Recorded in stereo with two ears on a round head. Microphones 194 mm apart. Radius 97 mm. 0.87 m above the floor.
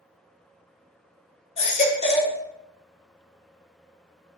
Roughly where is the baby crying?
Left.